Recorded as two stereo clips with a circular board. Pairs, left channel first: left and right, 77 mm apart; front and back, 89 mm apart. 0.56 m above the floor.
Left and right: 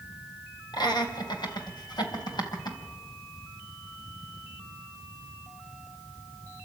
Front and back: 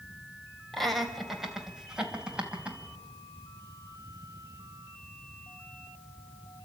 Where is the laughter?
85° left, 3 m; by 2.8 s 105° left, 4 m.